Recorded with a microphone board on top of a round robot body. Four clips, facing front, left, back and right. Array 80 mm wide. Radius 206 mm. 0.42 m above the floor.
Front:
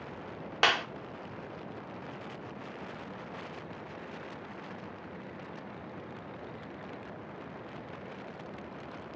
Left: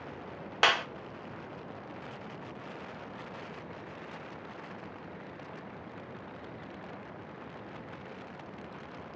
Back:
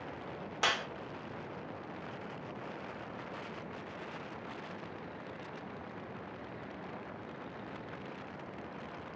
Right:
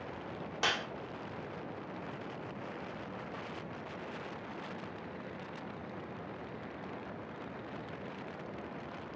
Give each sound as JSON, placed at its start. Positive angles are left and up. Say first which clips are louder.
{"t": 0.6, "sound": "a clap", "louder": "left 8 dB, front 6 dB", "azimuth_deg": 55, "distance_m": 1.7}